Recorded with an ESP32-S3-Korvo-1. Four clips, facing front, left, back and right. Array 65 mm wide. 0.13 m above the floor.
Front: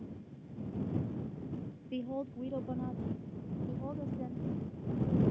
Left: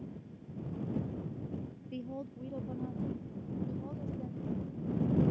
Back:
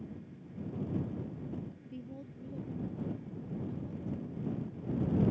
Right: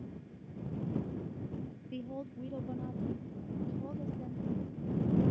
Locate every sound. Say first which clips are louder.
1.9 s a woman speaking: even, front 13 dB; 5° left; by 5.2 s straight ahead